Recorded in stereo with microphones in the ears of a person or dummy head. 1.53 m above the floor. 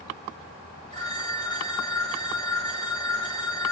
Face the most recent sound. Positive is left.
turn(degrees=20)  # may be behind; listen again after turning